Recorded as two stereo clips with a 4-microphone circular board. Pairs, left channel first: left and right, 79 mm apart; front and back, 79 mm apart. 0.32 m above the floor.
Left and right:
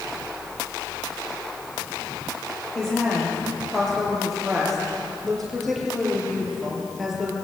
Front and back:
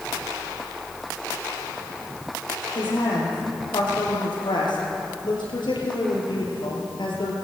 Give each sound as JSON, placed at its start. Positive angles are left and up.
{"t": 2.8, "sound": "a woman speaking", "azimuth_deg": 5, "distance_m": 8.0}